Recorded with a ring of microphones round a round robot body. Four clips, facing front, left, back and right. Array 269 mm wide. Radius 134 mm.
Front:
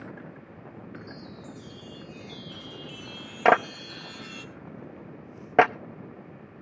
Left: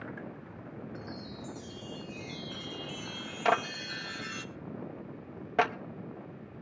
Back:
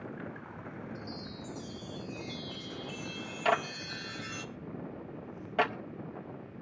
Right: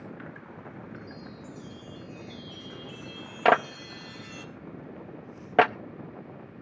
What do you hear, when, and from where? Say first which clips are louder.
0.9 s a chime: even, even; 100° left, 1.3 m
3.5 s a clap: right 6 dB, front 9 dB; 30° right, 0.6 m